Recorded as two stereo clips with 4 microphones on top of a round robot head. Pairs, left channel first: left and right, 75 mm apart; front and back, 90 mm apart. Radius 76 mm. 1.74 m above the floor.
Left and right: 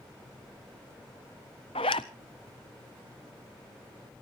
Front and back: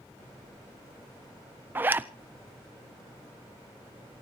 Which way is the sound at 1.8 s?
115° left.